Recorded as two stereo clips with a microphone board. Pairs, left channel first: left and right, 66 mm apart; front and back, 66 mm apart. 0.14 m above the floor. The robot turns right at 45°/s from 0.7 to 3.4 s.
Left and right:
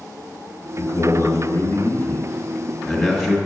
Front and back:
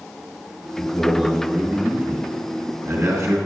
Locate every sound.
0.8 s a man speaking: 75° left, 2 m; by 3.4 s 170° right, 2 m